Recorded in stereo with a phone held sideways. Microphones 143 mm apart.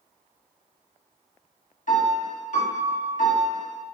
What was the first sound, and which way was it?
A piano, 60° left (ahead or behind).